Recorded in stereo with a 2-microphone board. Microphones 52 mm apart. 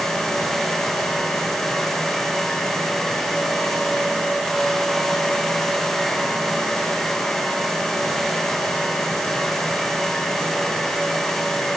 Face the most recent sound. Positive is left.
No sound to turn to.